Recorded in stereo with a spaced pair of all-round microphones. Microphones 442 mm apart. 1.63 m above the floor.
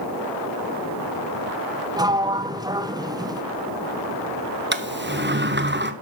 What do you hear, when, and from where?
2.0 s a sliding door: 10° right (ahead or behind), 0.6 m
4.7 s a sliding door: 25° right (ahead or behind), 1.0 m